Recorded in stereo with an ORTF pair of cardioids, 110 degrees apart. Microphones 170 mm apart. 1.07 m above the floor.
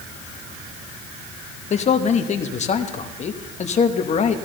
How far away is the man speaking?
About 1.1 m.